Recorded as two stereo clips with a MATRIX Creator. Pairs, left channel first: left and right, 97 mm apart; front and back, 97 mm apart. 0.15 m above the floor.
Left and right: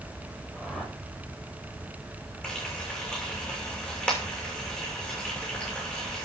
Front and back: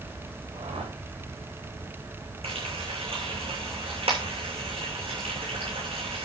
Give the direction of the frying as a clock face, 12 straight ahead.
6 o'clock.